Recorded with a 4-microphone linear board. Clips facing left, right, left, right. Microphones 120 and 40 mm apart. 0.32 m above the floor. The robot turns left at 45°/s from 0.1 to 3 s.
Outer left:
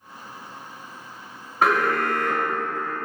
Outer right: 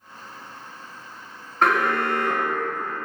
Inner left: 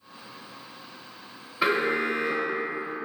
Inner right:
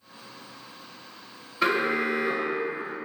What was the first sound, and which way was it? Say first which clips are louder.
An alarm: even, even; 5° left (ahead or behind).